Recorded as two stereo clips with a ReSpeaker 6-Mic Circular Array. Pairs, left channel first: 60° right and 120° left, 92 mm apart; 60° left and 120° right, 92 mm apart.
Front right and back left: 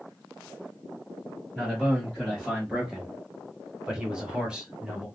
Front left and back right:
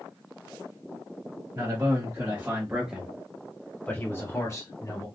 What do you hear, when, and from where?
1.5 s a man speaking: 150° right, 1.5 m; by 5.1 s 45° left, 1.5 m